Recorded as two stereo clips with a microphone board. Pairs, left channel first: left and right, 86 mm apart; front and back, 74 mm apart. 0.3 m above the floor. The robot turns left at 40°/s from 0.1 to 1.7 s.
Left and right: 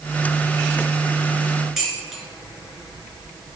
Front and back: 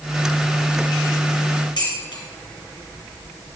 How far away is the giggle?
I don't hear a giggle.